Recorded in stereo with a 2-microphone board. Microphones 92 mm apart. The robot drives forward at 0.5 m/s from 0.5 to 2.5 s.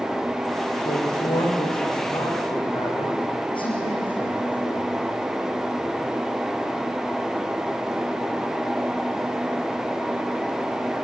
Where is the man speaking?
65° left (ahead or behind), 8 m; by 5.1 s 60° left (ahead or behind), 8.5 m.